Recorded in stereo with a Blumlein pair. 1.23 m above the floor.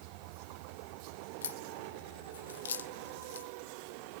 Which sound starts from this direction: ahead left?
A crack, at 1.4 s.